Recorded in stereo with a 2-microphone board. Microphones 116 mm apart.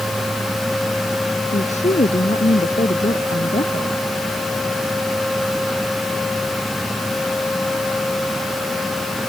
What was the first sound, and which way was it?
A woman speaking, 85° left.